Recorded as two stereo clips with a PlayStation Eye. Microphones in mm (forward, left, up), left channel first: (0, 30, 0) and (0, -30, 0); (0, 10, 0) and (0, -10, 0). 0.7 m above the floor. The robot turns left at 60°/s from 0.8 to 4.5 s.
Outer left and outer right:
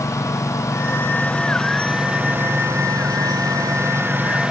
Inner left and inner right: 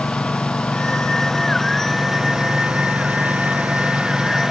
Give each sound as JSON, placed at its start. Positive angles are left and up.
{"t": 0.0, "sound": "a lawn mower", "azimuth_deg": 60}